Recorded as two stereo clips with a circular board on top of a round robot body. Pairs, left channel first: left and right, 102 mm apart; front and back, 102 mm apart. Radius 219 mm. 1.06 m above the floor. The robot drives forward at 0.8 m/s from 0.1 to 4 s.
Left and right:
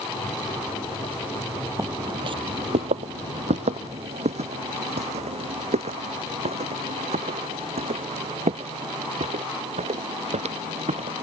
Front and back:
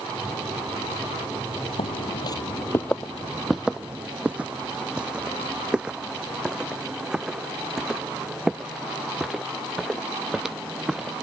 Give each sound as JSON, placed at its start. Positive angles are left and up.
{"t": 1.8, "sound": "footsteps", "azimuth_deg": -30}